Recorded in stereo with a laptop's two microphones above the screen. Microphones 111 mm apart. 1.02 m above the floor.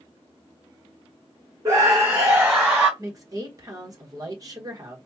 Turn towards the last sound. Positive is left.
turn(degrees=-35)  # may be behind; listen again after turning